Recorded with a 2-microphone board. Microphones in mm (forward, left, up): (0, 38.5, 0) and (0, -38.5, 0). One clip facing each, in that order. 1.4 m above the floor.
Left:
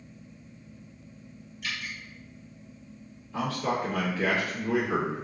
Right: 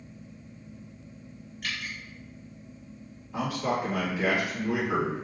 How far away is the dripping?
About 1.0 m.